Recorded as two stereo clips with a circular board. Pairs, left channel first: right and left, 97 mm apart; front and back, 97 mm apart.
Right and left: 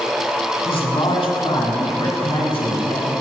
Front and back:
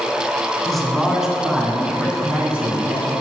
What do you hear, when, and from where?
0.7 s a man speaking: 85° right, 2 m; by 3.1 s 105° right, 4 m